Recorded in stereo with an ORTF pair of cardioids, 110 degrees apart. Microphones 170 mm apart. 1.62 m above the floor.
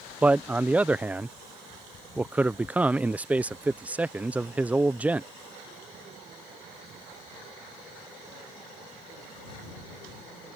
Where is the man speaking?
10° right.